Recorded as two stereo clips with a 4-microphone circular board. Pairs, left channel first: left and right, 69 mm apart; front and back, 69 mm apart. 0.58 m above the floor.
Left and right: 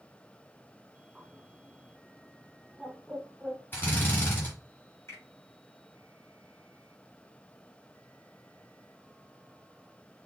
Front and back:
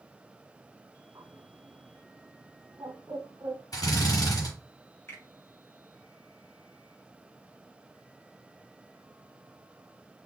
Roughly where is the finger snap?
Ahead left.